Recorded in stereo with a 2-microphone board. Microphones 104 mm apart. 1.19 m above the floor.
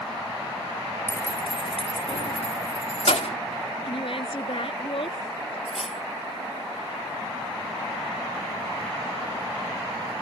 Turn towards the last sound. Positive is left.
turn(degrees=75)  # may be behind; listen again after turning